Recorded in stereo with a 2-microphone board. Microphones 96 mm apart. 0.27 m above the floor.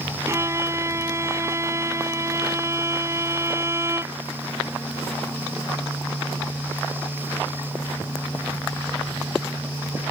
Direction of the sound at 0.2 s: 30° right (ahead or behind).